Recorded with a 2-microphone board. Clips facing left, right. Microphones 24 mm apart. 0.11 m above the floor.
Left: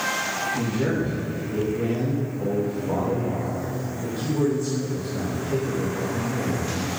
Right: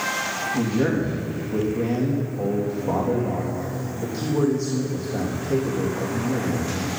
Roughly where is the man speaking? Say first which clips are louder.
Right 5 dB; right.